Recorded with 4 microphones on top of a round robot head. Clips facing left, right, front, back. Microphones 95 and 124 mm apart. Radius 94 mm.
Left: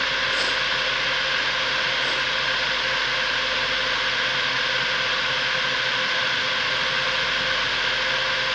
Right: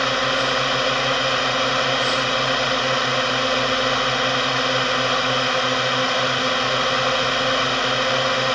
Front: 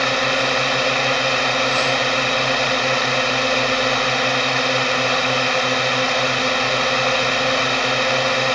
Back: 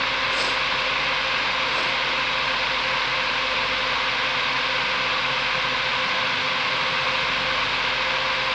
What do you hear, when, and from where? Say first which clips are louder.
0.0 s a drone: right 5 dB, front 7 dB; 40° right